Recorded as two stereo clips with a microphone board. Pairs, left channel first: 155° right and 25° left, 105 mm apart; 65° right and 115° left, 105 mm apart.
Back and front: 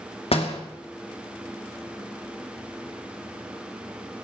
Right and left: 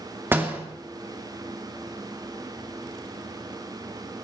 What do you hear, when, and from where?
0.3 s a door slam: straight behind, 2.5 m